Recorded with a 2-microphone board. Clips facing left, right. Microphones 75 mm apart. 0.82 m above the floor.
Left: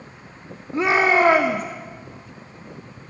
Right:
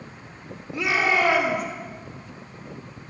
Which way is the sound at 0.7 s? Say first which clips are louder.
Left 5 dB; 40° left (ahead or behind).